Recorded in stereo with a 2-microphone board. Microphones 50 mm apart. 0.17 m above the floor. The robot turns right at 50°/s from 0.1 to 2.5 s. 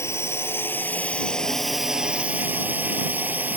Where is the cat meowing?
No cat meowing in this recording.